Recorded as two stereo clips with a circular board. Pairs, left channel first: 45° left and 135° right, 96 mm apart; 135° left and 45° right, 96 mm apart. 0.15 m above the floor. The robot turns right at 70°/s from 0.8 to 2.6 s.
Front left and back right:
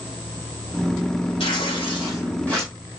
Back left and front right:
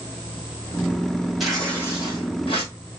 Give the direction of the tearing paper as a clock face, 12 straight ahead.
11 o'clock.